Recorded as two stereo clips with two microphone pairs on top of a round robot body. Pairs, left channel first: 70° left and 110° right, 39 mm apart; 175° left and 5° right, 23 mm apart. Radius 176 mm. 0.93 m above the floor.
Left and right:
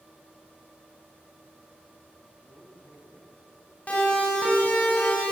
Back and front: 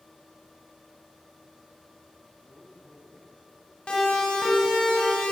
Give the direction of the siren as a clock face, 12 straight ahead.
8 o'clock.